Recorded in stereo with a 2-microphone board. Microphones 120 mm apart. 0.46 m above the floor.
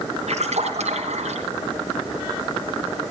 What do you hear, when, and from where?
0.3 s a splash: 75° right (ahead or behind), 3 m